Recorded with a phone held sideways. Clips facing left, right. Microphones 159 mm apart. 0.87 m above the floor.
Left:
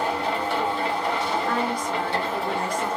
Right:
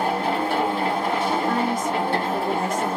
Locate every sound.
0.0 s a machine running: 50° right (ahead or behind), 1.6 m
1.5 s a woman speaking: 20° right (ahead or behind), 0.7 m